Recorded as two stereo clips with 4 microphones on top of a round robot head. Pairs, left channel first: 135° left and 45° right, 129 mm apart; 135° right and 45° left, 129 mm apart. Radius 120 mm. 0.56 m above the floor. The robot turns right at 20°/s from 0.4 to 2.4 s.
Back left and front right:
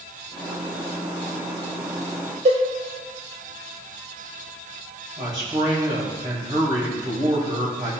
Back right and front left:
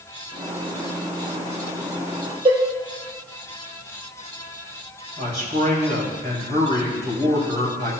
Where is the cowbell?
10° right, 1.6 m.